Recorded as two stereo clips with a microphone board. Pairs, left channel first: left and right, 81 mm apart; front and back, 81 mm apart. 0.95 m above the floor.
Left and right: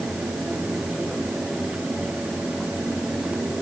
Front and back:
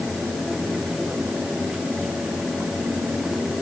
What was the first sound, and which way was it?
Only background noise.